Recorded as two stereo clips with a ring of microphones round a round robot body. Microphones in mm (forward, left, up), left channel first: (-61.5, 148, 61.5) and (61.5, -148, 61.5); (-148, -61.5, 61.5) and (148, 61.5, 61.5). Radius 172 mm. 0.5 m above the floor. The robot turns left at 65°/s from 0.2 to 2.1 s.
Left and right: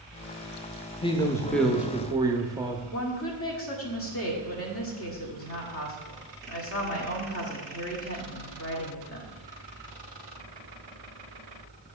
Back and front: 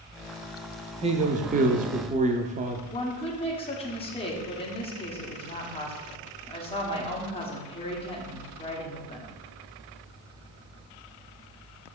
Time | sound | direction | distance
1.0 | a man speaking | 65° left | 0.7 m
2.9 | a woman speaking | 135° left | 1.4 m